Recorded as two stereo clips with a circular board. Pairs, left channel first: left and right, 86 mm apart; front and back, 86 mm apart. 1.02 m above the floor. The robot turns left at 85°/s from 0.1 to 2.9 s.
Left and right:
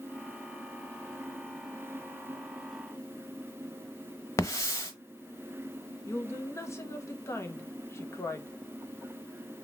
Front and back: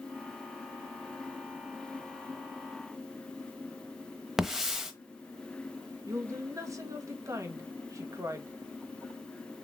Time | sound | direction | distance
4.4 | a hiss | 100° left | 0.9 m
6.1 | a woman speaking | 140° left | 0.9 m